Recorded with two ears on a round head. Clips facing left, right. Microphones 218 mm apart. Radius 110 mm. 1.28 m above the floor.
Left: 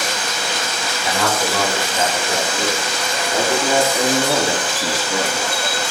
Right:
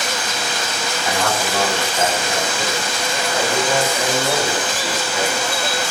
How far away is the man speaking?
About 6.5 m.